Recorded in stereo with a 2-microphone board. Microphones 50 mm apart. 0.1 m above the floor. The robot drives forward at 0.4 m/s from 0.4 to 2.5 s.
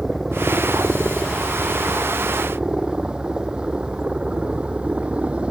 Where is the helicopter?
10° right (ahead or behind); by 5.5 s 25° right (ahead or behind).